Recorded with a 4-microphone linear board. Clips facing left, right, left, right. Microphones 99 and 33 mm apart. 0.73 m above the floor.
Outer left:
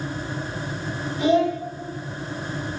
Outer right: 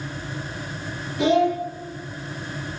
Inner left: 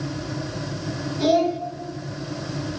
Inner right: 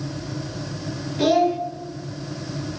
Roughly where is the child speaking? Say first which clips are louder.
Outer right 1 dB, inner right 1 dB; right.